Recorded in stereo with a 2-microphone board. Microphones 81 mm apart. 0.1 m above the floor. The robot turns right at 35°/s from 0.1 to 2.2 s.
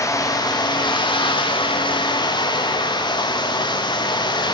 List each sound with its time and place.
0.0 s running water: 40° left, 2 m; by 4.5 s 115° left, 2 m